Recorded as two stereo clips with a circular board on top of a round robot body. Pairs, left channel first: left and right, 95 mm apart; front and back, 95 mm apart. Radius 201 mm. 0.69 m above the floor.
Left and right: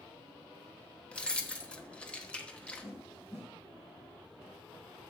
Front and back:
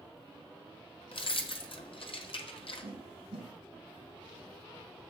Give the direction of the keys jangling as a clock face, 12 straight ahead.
12 o'clock.